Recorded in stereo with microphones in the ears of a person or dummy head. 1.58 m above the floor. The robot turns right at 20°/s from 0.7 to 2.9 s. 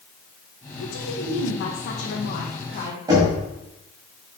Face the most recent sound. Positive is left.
turn(degrees=-30)  # may be behind; listen again after turning